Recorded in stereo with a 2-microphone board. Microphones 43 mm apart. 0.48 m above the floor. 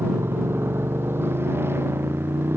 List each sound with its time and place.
0.0 s a motorcycle: 70° right (ahead or behind)